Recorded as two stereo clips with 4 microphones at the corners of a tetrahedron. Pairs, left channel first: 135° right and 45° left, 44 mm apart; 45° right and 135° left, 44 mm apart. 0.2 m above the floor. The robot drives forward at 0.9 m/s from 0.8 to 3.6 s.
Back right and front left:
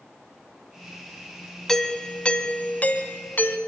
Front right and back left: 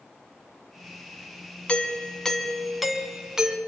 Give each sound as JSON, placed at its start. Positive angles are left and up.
{"t": 1.7, "sound": "a doorbell", "azimuth_deg": -65, "distance_m": 1.6}